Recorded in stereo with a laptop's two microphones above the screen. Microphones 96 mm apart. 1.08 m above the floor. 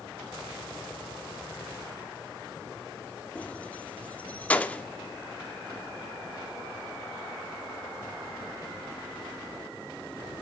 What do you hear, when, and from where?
3.4 s keys jangling: 15° left (ahead or behind), 1.7 m